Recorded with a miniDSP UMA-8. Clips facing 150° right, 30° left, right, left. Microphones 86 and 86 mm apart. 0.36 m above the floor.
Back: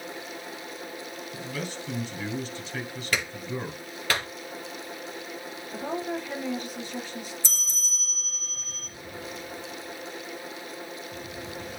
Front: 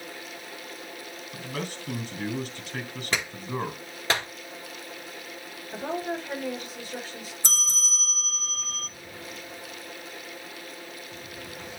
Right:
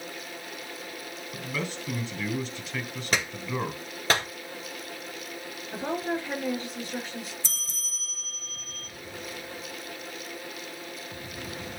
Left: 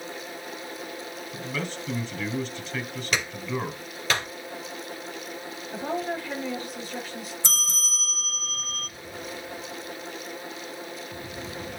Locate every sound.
1.3 s a man speaking: 10° right, 3.5 m
3.1 s a clap: 40° right, 7.5 m
5.7 s a woman speaking: 25° right, 5 m
7.4 s a bell: 65° left, 0.7 m